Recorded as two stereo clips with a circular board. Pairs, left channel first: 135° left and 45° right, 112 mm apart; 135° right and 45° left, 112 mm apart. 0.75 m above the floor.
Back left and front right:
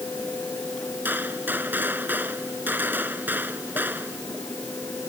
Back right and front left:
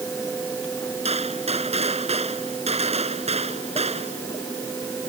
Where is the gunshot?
30° left.